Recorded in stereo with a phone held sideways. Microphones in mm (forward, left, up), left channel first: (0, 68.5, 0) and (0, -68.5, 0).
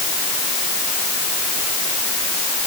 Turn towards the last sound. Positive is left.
No sound to turn to.